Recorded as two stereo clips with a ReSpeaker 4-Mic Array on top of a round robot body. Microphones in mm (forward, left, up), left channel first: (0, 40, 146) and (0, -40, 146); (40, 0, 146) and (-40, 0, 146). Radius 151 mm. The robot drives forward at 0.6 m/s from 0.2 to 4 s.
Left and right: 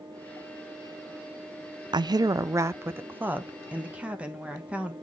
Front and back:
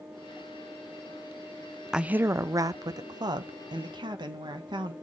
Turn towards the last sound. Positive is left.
turn(degrees=-165)